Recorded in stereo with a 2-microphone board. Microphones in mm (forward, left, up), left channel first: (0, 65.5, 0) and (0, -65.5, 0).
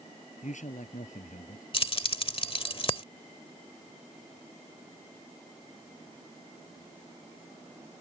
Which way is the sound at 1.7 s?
45° left (ahead or behind).